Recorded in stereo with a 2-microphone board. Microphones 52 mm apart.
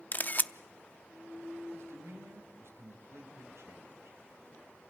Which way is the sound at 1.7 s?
70° right (ahead or behind).